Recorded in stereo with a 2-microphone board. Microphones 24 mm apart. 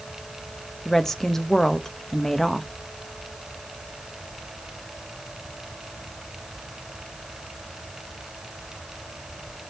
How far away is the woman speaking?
About 0.8 m.